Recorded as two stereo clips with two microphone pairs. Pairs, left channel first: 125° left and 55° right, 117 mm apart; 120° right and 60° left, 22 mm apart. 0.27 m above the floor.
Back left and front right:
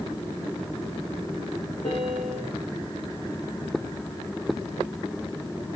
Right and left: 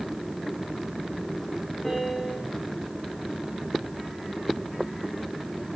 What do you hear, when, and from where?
1.8 s a piano: 165° left, 7.5 m